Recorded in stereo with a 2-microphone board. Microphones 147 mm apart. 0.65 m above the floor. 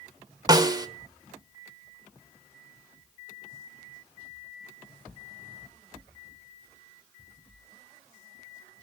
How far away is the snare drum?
About 1.1 m.